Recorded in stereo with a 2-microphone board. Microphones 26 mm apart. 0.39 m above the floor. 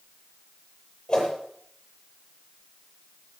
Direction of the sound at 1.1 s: 25° left (ahead or behind).